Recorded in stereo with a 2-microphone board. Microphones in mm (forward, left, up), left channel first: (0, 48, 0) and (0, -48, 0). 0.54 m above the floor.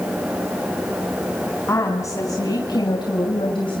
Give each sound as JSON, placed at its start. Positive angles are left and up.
{"t": 1.7, "sound": "a woman speaking", "side_deg": 30, "distance_m": 3.5}